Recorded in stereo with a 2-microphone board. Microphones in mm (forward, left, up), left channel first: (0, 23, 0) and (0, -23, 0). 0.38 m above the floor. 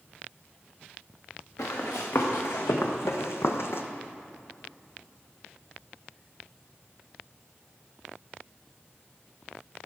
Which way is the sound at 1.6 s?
70° left (ahead or behind).